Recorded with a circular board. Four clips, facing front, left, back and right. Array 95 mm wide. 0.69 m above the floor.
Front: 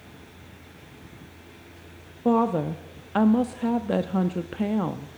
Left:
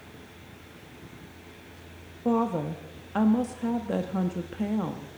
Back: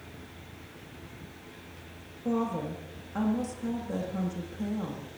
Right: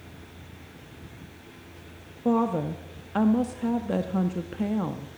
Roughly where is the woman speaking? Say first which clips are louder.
Right 2 dB, front 8 dB; ahead.